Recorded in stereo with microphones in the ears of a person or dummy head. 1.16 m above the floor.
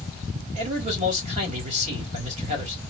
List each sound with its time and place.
0.6 s a man speaking: 35° right (ahead or behind), 2.0 m